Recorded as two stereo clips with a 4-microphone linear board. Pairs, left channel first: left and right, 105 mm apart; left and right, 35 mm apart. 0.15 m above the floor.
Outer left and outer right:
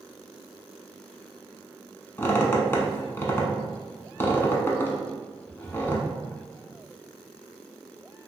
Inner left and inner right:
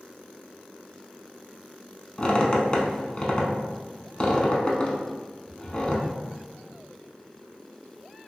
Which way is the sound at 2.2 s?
25° left (ahead or behind).